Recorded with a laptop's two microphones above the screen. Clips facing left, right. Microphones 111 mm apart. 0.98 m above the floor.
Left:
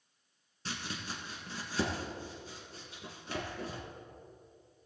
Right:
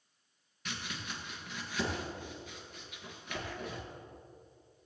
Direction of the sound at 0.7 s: 30° left (ahead or behind).